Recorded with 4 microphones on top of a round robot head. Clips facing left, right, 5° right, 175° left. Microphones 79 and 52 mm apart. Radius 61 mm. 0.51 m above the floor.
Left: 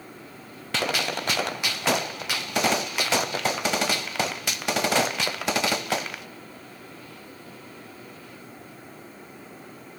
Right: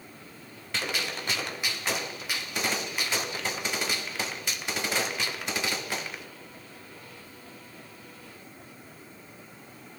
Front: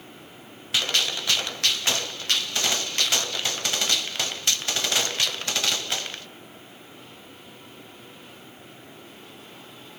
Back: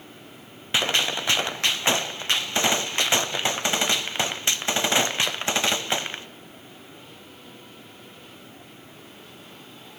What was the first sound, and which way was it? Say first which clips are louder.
A gunshot: left 6 dB, back 2 dB; 110° left.